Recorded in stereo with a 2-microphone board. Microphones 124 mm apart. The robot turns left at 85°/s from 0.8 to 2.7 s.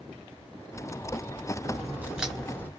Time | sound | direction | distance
1.6 | a crack | 120° right | 1.6 m